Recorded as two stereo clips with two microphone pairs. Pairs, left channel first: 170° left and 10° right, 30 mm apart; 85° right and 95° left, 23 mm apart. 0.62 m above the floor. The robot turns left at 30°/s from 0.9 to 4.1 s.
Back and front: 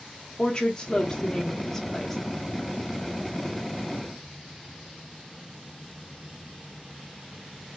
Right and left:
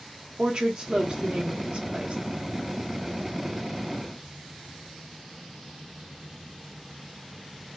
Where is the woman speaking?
125° left, 0.8 m; by 2.2 s 85° left, 0.8 m.